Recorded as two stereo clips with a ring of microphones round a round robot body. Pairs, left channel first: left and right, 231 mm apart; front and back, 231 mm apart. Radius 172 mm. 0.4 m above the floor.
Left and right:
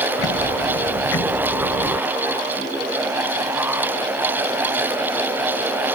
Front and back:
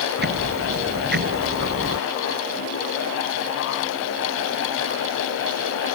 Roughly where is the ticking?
Behind left.